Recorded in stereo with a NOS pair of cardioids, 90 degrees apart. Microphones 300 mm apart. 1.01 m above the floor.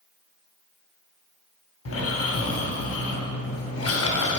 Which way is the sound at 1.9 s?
50° left.